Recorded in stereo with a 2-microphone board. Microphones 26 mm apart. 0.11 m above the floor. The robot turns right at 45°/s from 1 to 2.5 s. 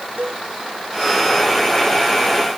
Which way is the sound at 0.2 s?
80° right.